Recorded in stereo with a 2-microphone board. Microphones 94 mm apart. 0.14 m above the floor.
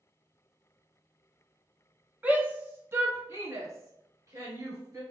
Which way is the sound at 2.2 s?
20° right (ahead or behind).